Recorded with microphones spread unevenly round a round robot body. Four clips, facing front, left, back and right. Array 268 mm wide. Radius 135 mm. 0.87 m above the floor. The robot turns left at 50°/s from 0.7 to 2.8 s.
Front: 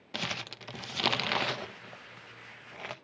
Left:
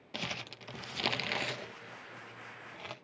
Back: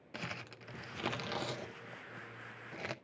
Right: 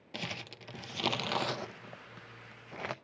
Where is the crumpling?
5° left, 0.7 m; by 2.9 s 100° right, 0.7 m.